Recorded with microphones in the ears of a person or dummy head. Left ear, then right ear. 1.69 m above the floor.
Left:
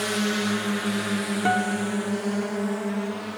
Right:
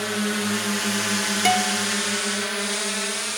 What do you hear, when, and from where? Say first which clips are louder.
0.0 s a drone: even; centre (ahead or behind); by 3.4 s 70° right (ahead or behind)
1.4 s a guitar: right 2 dB; 80° right